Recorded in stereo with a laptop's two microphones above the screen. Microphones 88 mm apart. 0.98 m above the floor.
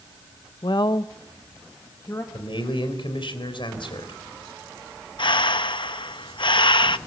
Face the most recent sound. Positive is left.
turn(degrees=60)  # may be behind; listen again after turning